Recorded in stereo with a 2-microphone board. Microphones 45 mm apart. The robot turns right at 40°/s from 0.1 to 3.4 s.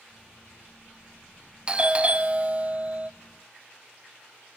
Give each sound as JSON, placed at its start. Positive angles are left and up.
{"t": 1.7, "sound": "a doorbell", "side_deg": -20, "distance_m": 0.5}